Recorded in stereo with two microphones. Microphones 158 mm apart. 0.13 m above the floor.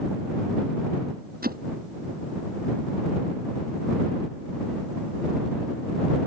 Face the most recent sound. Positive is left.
turn(degrees=-70)  # may be behind; listen again after turning